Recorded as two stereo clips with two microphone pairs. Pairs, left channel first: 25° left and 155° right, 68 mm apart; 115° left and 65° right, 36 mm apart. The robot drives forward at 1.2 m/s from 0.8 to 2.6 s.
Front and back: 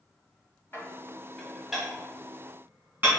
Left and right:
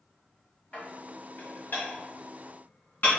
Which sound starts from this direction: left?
Dishes clattering, at 0.7 s.